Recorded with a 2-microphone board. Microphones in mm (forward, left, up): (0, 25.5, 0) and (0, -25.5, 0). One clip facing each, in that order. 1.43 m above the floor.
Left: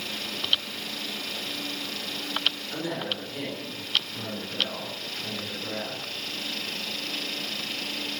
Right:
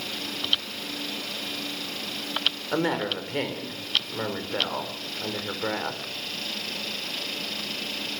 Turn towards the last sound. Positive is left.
turn(degrees=-55)  # may be behind; listen again after turning